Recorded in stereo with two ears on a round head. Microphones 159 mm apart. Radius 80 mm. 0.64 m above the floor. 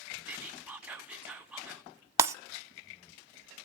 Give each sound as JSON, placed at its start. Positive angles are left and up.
{"t": 0.3, "sound": "whispering", "side_deg": -5, "distance_m": 1.5}
{"t": 2.2, "sound": "breaking glass", "side_deg": -15, "distance_m": 0.8}